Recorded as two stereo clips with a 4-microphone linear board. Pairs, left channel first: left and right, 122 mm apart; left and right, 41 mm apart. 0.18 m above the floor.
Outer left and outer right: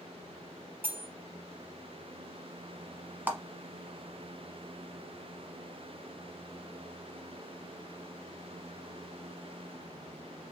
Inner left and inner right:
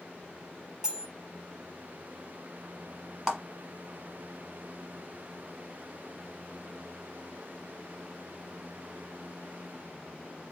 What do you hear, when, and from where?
0.8 s cutlery clinking: 15° right (ahead or behind), 0.8 m
3.3 s a clap: 15° right (ahead or behind), 1.1 m